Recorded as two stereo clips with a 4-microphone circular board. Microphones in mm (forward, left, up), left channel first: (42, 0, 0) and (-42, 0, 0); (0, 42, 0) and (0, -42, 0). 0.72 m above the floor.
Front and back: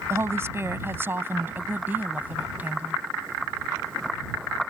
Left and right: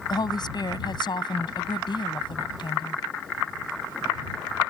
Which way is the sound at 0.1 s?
120° left.